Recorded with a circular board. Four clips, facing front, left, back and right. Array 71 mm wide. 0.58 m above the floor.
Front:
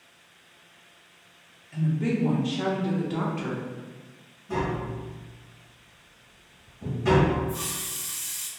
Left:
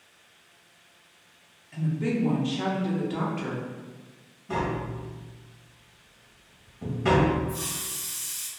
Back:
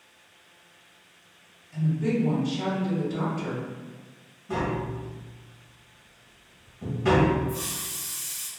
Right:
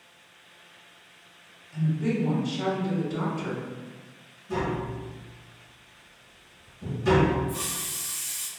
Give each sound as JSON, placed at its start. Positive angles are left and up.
{"t": 1.7, "sound": "a woman speaking", "azimuth_deg": 40, "distance_m": 1.0}
{"t": 4.5, "sound": "tapping", "azimuth_deg": 110, "distance_m": 1.0}
{"t": 7.5, "sound": "a hiss", "azimuth_deg": -75, "distance_m": 0.7}